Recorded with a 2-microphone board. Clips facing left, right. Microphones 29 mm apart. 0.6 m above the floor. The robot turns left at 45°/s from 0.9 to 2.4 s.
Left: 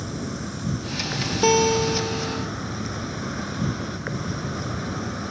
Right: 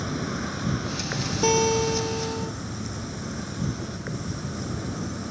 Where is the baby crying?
I don't hear a baby crying.